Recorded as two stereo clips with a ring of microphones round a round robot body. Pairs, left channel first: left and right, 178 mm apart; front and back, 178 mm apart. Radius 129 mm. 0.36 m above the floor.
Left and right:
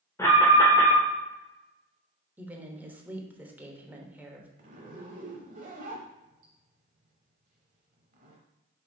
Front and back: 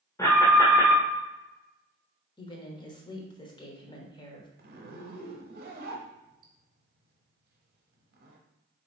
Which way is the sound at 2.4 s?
20° right.